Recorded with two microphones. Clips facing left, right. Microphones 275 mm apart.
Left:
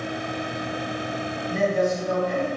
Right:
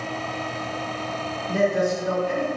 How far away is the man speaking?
About 1.1 m.